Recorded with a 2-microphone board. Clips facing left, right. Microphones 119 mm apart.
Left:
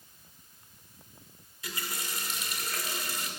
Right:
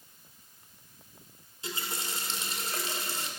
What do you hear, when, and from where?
1.6 s a running tap: 30° right (ahead or behind), 2.5 m